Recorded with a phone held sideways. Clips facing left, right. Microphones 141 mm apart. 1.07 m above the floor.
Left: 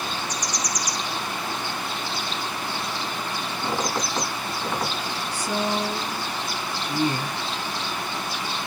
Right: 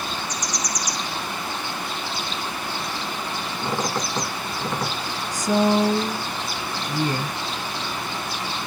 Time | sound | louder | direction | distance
3.6 | a squeak | right 1 dB | centre (ahead or behind) | 3.5 m
5.3 | a woman speaking | right 8 dB | 40° right (ahead or behind) | 0.8 m